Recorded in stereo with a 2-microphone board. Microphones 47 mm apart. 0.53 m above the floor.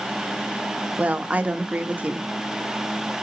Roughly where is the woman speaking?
Right.